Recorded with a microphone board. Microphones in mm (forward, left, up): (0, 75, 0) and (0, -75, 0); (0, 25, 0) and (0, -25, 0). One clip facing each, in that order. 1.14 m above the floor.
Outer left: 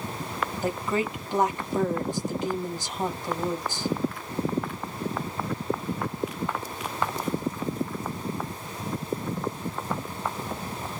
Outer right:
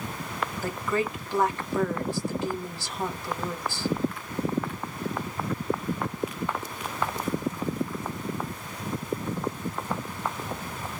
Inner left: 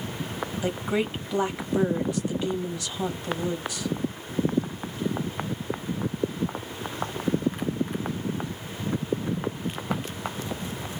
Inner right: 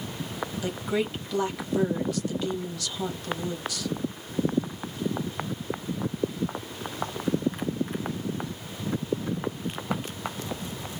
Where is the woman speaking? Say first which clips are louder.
Outer left 1 dB, inner left 2 dB; 20° left (ahead or behind), 1.2 m.